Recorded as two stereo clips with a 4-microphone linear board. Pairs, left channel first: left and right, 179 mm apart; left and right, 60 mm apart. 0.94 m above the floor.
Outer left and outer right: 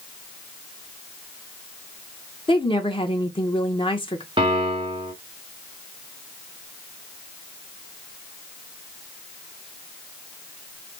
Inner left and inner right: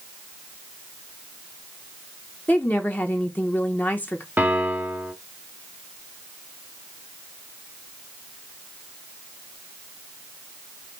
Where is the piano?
30° right (ahead or behind), 1.0 m.